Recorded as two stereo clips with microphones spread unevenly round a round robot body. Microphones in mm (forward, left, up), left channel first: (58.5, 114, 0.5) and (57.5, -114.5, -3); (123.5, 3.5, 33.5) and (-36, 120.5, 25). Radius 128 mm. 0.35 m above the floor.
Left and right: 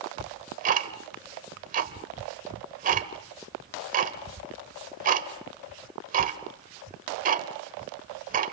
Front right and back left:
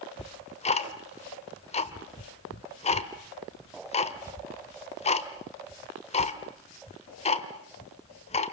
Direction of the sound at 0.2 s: 75° right.